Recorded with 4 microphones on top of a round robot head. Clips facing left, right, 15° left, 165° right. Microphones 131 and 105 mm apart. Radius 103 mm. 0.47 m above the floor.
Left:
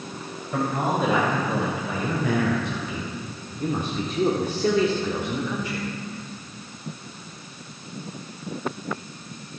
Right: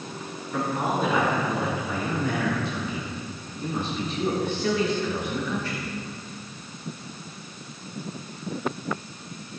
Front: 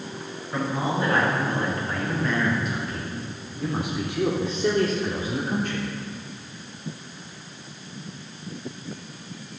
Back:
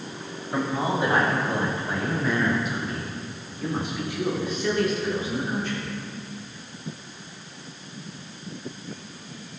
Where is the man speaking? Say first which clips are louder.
Left 2 dB, back 1 dB; 125° left, 3.5 m; by 5.9 s 15° left, 1.7 m.